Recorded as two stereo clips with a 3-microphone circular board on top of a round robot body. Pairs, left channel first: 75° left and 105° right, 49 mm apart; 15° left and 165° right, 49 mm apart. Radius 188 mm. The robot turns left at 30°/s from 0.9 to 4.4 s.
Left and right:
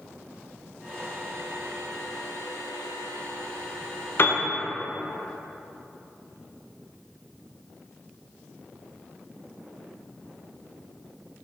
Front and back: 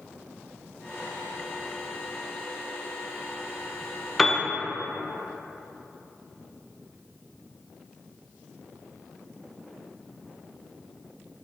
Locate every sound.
4.2 s a piano: 100° left, 0.6 m; by 4.4 s 95° left, 0.6 m